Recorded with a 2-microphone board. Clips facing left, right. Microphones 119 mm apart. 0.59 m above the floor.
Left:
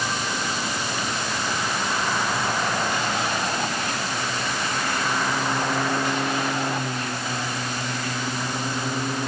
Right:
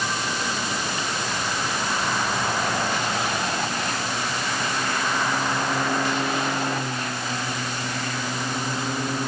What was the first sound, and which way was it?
Only background noise.